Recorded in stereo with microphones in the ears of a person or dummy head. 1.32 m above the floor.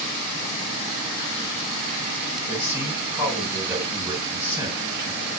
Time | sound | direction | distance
2.5 | a man speaking | 15° right (ahead or behind) | 6.5 m